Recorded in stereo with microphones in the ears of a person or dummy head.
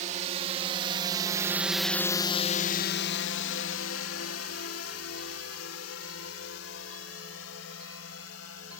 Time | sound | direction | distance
0.0 | a drone | 45° right (ahead or behind) | ?